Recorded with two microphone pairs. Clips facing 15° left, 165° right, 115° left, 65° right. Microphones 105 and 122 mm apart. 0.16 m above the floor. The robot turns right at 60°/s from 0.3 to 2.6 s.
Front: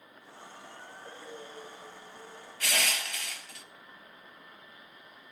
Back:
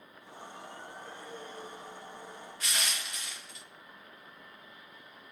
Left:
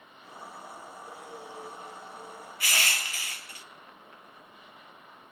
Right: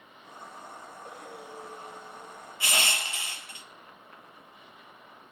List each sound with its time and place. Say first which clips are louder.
1.0 s breathing: front 2 dB, right 1 dB; 50° right, 2.5 m; by 2.5 s 35° left, 2.5 m
2.6 s crushing: front 5 dB, right 2 dB; 5° left, 0.5 m